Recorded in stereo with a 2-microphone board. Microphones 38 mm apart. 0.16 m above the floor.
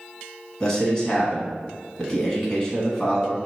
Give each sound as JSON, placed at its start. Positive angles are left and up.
{"t": 0.6, "sound": "a man speaking", "side_deg": 20, "distance_m": 1.3}